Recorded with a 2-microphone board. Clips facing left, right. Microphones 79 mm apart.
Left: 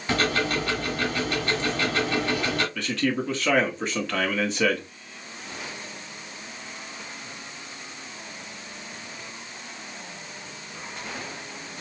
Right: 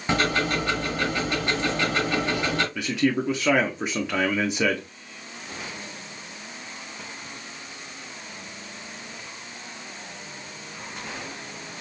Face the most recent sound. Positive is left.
turn(degrees=-10)  # may be behind; listen again after turning